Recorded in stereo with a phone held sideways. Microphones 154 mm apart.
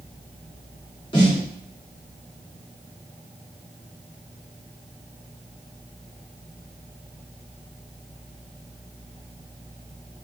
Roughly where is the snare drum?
Left.